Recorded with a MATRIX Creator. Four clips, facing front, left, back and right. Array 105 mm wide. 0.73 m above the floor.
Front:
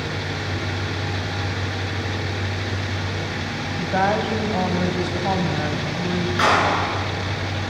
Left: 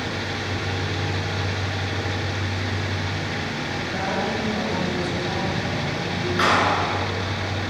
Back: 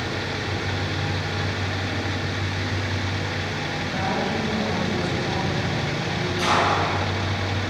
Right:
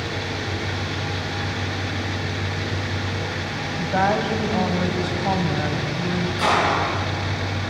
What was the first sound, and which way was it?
A woman speaking, 40° right.